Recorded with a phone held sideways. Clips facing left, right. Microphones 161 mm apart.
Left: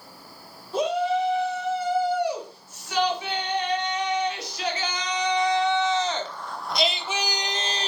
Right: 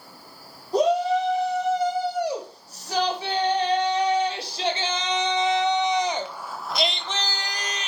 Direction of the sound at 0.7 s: 40° right (ahead or behind).